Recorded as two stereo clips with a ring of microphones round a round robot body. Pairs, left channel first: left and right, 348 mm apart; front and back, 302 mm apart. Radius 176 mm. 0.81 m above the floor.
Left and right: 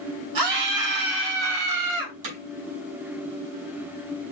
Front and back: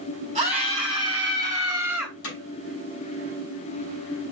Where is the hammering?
55° right, 6 m.